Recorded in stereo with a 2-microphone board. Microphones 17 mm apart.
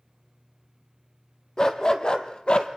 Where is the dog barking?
40° left (ahead or behind), 1.9 m; by 2.7 s 65° left (ahead or behind), 1.5 m.